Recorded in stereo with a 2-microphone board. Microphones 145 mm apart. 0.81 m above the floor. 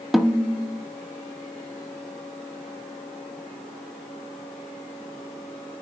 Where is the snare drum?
Centre (ahead or behind), 1.2 m.